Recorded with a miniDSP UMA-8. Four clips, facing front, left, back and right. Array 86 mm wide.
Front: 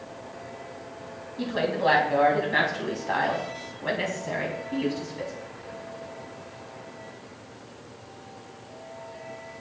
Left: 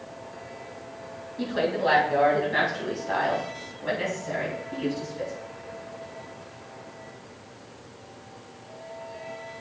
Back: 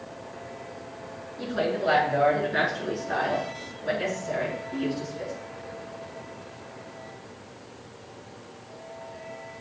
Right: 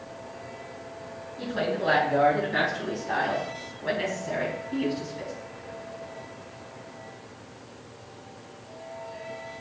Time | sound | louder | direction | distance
1.4 | a woman speaking | left 3 dB, front 1 dB | 20° left | 4.5 m